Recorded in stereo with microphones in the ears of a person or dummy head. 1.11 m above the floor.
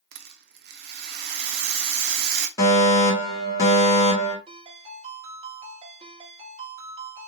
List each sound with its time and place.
0.1 s a rattle: 65° right (ahead or behind), 0.6 m
2.6 s a fire alarm: 20° left (ahead or behind), 1.5 m
4.5 s a ringtone: 30° right (ahead or behind), 1.3 m